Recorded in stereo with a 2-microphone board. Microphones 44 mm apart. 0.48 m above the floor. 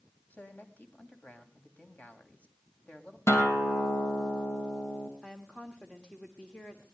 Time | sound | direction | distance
0.3 | a man speaking | 35° left (ahead or behind) | 2.5 m
3.3 | a guitar | 85° left | 2.5 m
5.2 | a woman speaking | 25° left (ahead or behind) | 1.5 m